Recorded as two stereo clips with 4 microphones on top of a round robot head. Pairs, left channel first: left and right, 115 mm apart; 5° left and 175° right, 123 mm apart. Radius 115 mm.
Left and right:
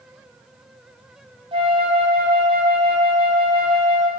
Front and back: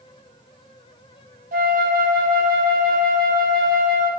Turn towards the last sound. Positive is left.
turn(degrees=-150)